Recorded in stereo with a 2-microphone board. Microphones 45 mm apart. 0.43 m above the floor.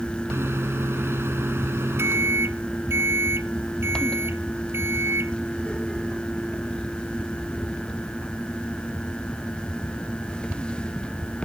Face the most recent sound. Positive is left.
turn(degrees=-70)  # may be behind; listen again after turning